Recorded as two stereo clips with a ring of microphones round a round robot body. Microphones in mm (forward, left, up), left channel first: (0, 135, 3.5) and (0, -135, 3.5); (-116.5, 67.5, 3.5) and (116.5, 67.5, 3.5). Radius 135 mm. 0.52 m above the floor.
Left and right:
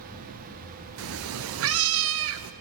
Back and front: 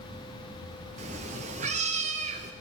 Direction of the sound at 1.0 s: 60° right.